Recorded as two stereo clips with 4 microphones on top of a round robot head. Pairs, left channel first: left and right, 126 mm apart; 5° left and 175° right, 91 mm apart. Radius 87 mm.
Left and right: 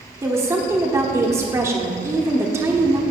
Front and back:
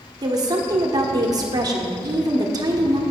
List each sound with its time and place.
0.2 s a woman speaking: 150° right, 1.2 m